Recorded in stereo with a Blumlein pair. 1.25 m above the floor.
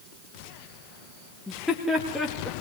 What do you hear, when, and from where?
1.5 s laughter: 5° left, 2.5 m